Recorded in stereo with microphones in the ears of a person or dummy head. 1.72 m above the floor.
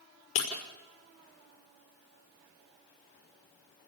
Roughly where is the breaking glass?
Left.